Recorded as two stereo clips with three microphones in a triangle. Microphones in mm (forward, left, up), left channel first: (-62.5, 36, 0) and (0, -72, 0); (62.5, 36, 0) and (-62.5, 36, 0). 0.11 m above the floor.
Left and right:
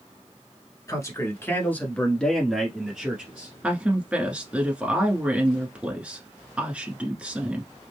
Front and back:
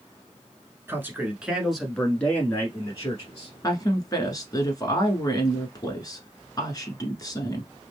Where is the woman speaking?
10° left, 1.2 m.